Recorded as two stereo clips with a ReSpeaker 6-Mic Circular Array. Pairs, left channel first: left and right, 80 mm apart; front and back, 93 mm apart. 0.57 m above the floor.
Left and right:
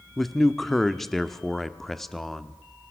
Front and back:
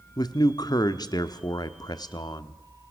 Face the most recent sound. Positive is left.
turn(degrees=5)